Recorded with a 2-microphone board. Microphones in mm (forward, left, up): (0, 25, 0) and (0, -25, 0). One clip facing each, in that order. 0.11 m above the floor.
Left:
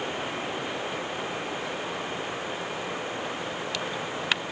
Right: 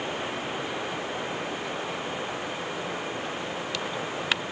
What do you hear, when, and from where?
Only background noise.